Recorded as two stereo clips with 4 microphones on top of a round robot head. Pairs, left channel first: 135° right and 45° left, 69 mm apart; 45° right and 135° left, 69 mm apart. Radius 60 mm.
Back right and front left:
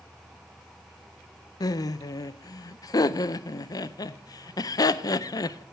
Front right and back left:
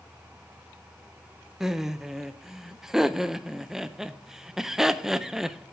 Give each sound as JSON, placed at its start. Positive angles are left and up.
{"t": 1.6, "sound": "laughter", "azimuth_deg": -145, "distance_m": 0.5}